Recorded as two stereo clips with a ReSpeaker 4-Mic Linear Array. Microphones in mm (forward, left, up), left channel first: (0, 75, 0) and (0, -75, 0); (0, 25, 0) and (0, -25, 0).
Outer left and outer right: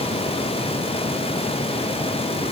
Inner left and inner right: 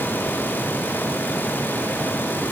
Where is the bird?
No bird in this recording.